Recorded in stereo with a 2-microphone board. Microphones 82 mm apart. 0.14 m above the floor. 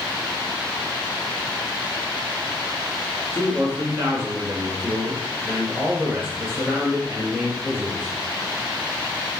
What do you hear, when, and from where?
3.3 s a man speaking: 30° right (ahead or behind), 1.6 m; by 8.1 s 20° right (ahead or behind), 3 m